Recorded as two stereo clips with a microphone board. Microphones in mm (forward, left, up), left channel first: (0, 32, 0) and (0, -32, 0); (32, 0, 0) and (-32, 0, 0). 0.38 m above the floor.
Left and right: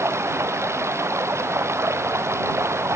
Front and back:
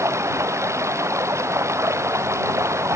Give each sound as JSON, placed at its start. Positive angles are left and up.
{"t": 0.0, "sound": "running water", "azimuth_deg": -135}